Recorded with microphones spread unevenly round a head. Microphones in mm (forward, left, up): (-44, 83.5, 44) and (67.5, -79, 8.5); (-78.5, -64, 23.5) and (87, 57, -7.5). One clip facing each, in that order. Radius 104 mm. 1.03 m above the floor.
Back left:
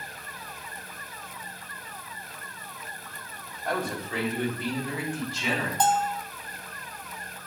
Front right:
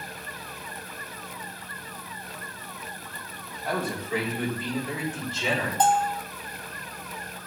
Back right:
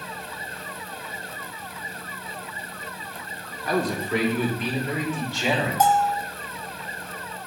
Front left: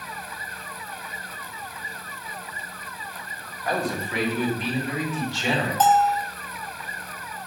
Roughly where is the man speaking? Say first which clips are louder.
Front right 1 dB, back right 3 dB; behind right.